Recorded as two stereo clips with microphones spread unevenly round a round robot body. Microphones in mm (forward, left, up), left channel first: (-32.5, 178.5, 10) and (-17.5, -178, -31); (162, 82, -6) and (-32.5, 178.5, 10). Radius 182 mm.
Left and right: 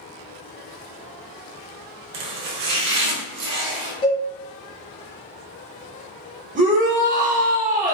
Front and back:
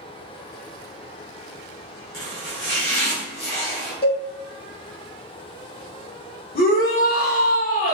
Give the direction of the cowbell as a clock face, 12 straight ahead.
11 o'clock.